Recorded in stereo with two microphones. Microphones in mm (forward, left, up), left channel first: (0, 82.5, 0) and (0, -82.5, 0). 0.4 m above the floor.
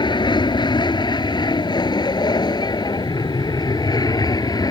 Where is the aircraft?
30° left (ahead or behind); by 4.7 s 25° left (ahead or behind).